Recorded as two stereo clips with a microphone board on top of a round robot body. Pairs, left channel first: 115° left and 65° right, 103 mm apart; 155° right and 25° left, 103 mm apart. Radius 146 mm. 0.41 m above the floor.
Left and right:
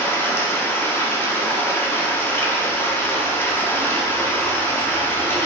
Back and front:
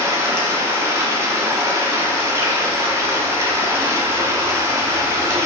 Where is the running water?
65° left, 1.0 m.